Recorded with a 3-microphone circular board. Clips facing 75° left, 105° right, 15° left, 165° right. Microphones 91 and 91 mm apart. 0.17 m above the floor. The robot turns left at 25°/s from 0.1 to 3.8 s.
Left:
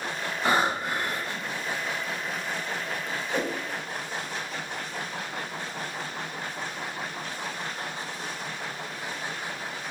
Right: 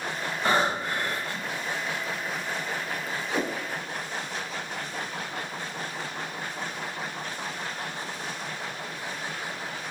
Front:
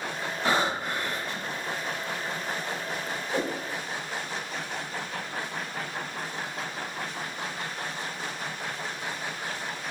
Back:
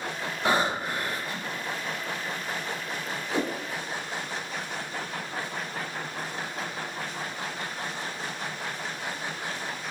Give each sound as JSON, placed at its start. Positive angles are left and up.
{"t": 0.5, "sound": "breathing", "azimuth_deg": 145, "distance_m": 1.1}
{"t": 3.3, "sound": "a whoosh", "azimuth_deg": -155, "distance_m": 0.6}